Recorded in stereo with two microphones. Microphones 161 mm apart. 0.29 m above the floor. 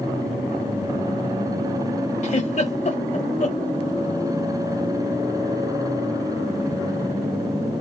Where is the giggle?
50° left (ahead or behind), 1.4 m.